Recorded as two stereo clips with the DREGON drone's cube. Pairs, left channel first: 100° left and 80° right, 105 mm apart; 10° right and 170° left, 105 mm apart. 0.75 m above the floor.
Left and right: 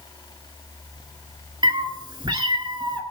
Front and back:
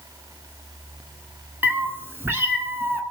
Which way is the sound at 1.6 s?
120° right.